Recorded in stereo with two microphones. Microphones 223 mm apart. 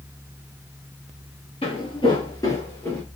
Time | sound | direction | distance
1.6 | footsteps | 25° left (ahead or behind) | 1.2 m